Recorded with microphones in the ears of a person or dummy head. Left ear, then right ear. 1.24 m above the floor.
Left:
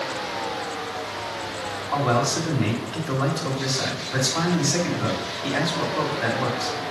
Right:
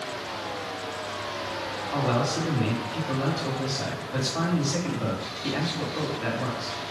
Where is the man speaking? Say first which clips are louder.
Left 5 dB; 15° left (ahead or behind), 1.7 m.